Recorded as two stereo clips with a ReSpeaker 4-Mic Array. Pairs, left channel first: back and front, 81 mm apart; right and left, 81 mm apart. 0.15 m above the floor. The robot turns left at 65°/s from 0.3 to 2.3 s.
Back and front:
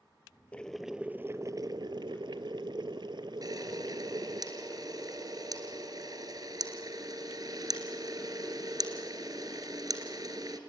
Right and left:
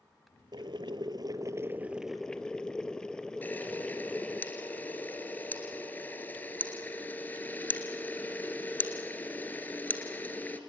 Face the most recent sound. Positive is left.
turn(degrees=-25)